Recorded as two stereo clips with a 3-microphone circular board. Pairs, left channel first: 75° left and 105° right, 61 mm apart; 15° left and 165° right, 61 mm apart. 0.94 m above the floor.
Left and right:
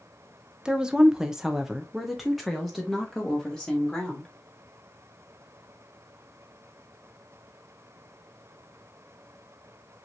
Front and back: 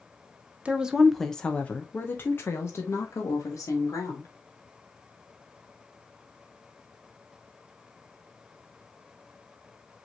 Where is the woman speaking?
155° right, 0.6 m; by 4.3 s 15° right, 1.8 m.